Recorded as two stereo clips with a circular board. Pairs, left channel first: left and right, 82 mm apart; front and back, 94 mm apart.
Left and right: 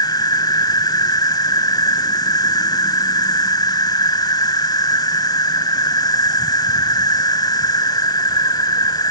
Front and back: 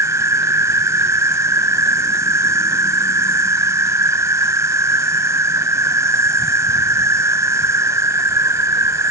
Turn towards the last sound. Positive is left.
turn(degrees=120)